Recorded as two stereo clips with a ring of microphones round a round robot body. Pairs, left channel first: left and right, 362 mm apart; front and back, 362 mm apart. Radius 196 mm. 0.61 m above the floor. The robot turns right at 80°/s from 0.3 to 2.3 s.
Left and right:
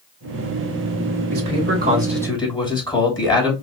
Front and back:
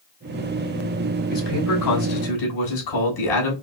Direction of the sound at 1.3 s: 70° right.